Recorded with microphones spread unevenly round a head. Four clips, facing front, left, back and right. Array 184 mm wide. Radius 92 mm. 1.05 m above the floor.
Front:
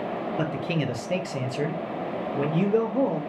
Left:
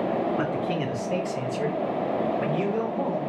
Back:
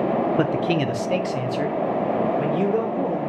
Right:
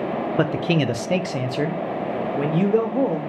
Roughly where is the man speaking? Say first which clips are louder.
Right 5 dB, back 7 dB; behind right.